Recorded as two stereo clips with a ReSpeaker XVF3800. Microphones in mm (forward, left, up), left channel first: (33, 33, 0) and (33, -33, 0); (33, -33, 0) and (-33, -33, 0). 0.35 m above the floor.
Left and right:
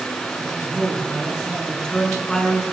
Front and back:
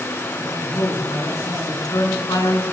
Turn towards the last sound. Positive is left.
turn(degrees=10)